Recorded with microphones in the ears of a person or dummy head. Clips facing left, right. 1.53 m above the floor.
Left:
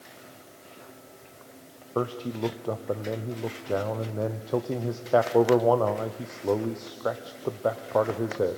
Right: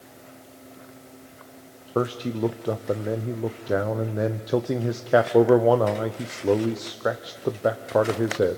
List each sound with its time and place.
1.9 s a man speaking: 20° right (ahead or behind), 0.8 m